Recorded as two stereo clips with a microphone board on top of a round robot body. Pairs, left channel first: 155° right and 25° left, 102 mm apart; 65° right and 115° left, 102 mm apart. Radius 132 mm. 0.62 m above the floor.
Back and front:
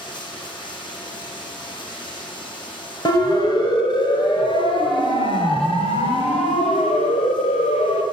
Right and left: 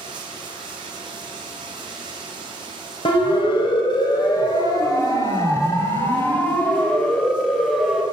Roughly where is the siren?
Right.